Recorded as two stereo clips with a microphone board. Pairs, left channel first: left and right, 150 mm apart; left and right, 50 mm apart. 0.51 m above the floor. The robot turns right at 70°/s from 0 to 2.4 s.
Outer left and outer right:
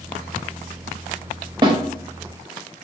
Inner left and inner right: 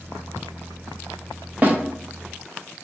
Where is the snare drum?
30° right (ahead or behind), 0.8 m; by 1.8 s 40° right (ahead or behind), 0.8 m.